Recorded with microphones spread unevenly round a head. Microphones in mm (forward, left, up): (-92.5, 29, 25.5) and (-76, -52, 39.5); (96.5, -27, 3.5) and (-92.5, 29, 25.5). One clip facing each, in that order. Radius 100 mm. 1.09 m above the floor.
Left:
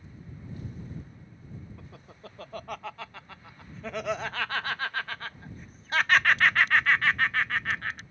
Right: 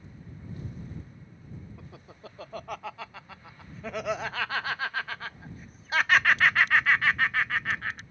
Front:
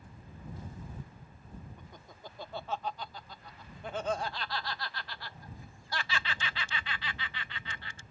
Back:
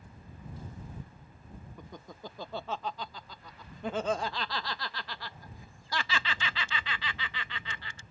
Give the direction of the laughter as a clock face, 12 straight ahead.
6 o'clock.